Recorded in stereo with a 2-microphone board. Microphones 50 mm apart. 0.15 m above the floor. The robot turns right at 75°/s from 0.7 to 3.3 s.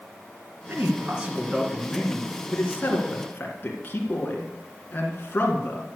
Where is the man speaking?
70° right, 2 m; by 5.9 s 125° left, 2 m.